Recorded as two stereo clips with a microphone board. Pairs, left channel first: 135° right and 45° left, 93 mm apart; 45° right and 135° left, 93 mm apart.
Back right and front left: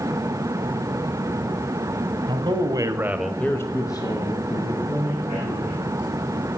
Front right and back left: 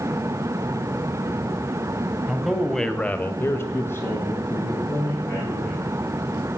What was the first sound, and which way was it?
A man speaking, 50° left.